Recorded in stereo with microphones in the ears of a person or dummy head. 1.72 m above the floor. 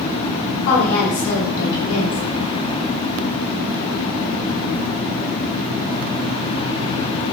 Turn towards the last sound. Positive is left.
turn(degrees=70)  # may be behind; listen again after turning